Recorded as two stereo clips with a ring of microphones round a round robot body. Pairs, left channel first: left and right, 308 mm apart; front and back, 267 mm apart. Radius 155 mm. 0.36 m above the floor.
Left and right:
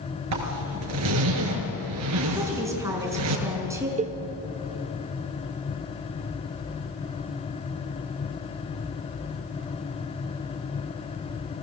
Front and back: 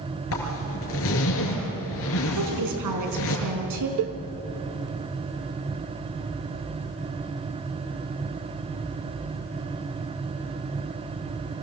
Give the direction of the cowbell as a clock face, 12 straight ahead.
5 o'clock.